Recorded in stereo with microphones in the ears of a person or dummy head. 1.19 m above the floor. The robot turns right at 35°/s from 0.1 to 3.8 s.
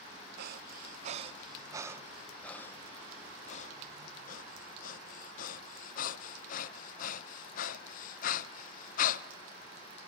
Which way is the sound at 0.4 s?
60° right (ahead or behind).